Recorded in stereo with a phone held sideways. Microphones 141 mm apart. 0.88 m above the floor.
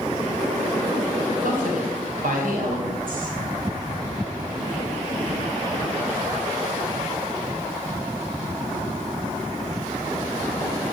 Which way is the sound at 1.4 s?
80° right.